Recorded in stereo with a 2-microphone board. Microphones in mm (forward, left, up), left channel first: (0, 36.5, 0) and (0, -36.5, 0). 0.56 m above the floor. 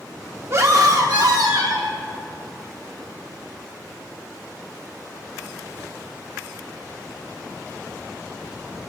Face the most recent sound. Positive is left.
turn(degrees=-75)  # may be behind; listen again after turning